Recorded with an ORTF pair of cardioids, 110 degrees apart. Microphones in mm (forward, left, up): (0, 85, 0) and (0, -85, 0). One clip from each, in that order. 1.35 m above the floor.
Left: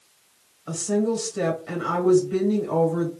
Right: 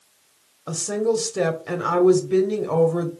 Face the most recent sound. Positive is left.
turn(degrees=-35)